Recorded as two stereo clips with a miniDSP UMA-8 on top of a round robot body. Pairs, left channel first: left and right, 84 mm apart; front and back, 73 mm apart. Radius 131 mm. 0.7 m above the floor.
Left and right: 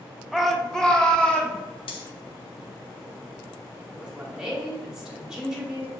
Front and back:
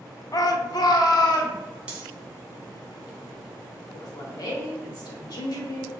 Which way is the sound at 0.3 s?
Straight ahead.